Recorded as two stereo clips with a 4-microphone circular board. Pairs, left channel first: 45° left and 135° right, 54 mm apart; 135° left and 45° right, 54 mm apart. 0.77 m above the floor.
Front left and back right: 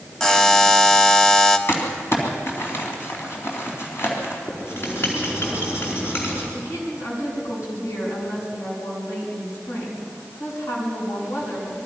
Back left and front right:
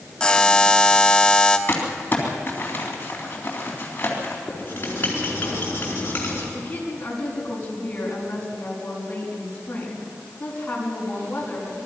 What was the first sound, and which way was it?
A buzzer, 100° left.